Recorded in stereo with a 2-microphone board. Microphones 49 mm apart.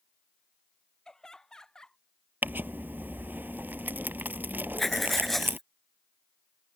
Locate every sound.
1.1 s laughter: 10° left (ahead or behind)
2.4 s crumpling: 45° right (ahead or behind)
4.8 s writing: 5° left (ahead or behind)